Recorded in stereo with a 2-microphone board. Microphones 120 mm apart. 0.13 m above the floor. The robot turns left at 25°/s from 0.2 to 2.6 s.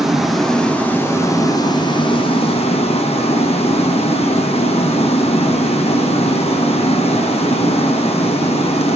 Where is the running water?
Straight behind, 1.2 m; by 9.0 s 120° left, 1.2 m.